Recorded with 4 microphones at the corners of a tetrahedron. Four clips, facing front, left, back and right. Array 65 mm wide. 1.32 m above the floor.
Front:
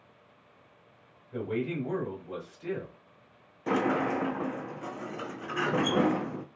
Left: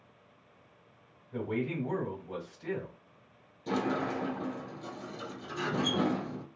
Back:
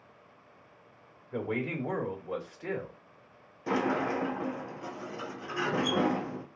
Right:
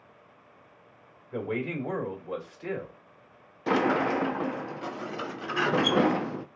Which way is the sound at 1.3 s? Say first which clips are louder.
Right 2 dB, front 1 dB; 125° right.